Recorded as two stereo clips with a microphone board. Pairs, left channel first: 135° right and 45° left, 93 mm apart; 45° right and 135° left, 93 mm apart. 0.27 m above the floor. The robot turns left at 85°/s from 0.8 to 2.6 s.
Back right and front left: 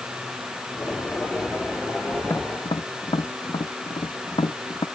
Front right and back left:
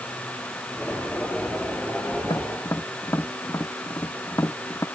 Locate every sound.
2.2 s tapping: 75° right; by 4.8 s 105° right